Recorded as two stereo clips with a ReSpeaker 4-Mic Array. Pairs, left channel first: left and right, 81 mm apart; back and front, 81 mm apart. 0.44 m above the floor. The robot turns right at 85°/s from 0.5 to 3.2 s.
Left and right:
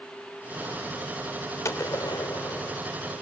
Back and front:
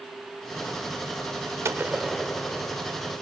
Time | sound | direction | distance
1.6 | a gunshot | 45° left | 0.7 m